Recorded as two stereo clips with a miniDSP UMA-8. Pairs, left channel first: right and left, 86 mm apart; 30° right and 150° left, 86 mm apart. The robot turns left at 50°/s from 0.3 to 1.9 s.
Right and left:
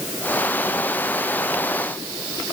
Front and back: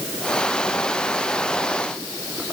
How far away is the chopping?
I don't hear chopping.